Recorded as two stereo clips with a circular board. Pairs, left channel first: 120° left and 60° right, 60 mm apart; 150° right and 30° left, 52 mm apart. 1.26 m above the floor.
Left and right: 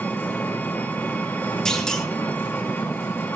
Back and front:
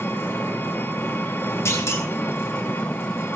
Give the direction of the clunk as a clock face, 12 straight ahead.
5 o'clock.